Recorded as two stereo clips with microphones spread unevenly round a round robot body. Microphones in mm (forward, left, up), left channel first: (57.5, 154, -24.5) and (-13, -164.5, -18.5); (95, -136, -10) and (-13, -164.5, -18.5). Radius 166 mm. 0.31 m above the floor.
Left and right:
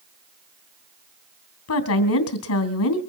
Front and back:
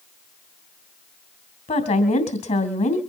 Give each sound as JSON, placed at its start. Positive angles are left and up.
{"t": 1.7, "sound": "a woman speaking", "azimuth_deg": 40, "distance_m": 2.5}